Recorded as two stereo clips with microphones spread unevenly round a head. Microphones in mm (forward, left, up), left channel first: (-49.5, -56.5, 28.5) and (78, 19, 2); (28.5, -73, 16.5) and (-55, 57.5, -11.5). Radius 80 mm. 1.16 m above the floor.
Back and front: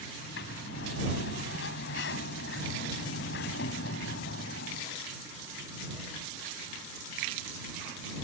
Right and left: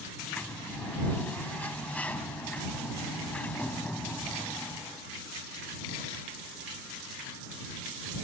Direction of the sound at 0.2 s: 140° right.